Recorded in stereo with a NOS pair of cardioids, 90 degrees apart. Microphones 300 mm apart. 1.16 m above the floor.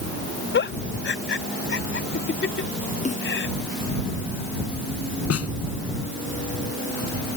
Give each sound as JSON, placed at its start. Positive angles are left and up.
{"t": 0.5, "sound": "a giggle", "azimuth_deg": 40}
{"t": 3.0, "sound": "a snare drum", "azimuth_deg": 25}
{"t": 5.3, "sound": "a snare drum", "azimuth_deg": 50}